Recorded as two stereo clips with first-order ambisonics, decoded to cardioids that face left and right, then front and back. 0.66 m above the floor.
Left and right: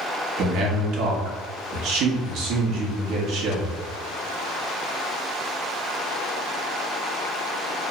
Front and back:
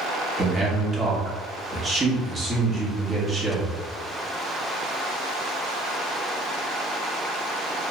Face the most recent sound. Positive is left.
turn(degrees=-115)